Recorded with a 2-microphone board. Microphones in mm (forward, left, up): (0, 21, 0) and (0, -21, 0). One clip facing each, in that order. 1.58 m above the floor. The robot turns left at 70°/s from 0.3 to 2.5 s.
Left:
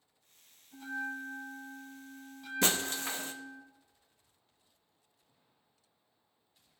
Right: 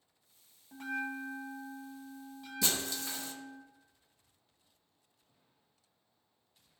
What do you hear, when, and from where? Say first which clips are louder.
0.7 s a bell: right 1 dB; 60° right, 1.8 m; by 3.6 s 175° left, 1.8 m
2.6 s breaking glass: left 4 dB; 50° left (ahead or behind), 1.0 m